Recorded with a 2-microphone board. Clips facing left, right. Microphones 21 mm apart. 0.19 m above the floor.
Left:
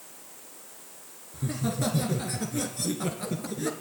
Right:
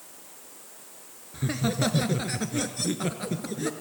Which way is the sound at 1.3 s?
40° right (ahead or behind).